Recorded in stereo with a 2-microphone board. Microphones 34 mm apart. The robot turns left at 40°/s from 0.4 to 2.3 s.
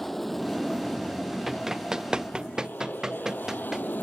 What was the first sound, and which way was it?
An aircraft, 5° left (ahead or behind).